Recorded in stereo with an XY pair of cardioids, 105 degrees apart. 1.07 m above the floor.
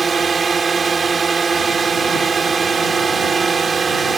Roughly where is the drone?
Ahead right.